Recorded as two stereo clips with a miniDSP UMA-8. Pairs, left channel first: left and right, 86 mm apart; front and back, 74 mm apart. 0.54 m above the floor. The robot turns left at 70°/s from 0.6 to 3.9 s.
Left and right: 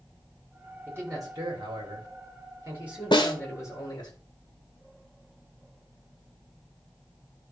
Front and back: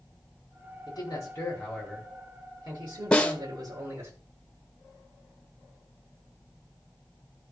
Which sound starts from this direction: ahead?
A man speaking, at 0.9 s.